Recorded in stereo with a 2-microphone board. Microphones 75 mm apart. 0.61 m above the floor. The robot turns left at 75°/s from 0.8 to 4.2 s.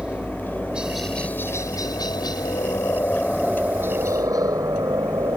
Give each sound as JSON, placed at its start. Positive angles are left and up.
{"t": 0.0, "sound": "a helicopter", "side_deg": -10}